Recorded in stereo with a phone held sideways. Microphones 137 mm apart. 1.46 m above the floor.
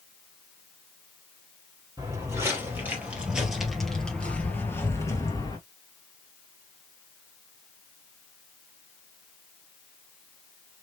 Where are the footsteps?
25° right (ahead or behind), 2.5 m; by 5.6 s 30° left (ahead or behind), 1.9 m.